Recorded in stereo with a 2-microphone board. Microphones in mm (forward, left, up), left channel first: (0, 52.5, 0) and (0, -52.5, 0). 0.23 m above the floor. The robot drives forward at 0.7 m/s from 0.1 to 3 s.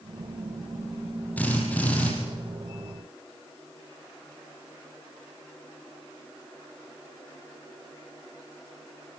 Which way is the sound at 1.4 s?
15° left (ahead or behind).